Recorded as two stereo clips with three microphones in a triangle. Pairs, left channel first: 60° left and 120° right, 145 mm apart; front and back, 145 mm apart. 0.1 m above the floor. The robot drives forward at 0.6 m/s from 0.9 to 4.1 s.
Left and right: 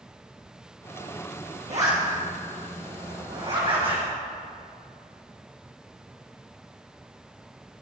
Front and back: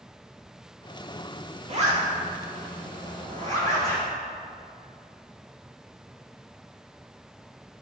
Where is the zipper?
150° right, 2.5 m; by 4.0 s 160° right, 3.5 m.